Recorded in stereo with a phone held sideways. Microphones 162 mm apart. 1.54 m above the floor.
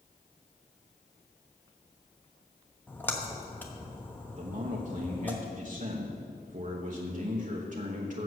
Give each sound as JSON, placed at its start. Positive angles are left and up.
{"t": 2.9, "sound": "a splash", "side_deg": 10, "distance_m": 1.1}
{"t": 4.3, "sound": "a man speaking", "side_deg": -50, "distance_m": 1.0}